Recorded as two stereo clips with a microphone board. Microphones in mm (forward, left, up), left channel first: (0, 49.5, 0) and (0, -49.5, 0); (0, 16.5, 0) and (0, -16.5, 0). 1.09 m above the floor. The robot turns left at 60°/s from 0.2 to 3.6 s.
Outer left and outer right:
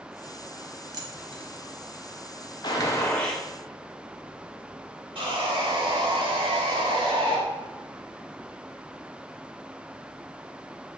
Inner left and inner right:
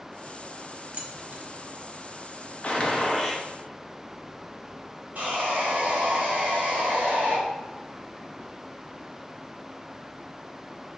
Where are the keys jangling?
40° right (ahead or behind), 0.6 m; by 1.5 s 75° right (ahead or behind), 0.6 m.